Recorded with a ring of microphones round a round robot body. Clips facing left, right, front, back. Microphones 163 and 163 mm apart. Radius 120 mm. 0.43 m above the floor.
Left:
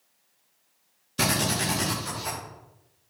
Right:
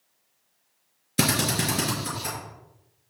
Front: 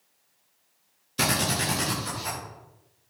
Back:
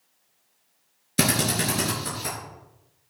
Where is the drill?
135° right, 5.5 m.